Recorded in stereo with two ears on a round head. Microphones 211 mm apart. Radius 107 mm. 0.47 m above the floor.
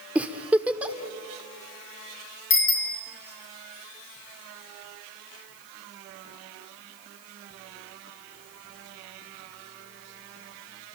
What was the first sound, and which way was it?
A giggle, 5° right (ahead or behind).